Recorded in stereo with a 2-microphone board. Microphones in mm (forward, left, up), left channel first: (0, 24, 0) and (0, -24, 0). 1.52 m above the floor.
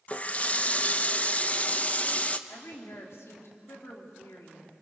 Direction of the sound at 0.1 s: 30° left (ahead or behind).